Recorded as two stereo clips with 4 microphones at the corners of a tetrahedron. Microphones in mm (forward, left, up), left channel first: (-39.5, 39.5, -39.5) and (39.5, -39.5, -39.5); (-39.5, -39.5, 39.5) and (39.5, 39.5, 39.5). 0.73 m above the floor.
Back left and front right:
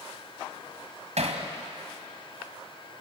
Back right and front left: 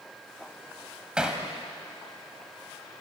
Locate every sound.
1.2 s hammering: 40° right, 3 m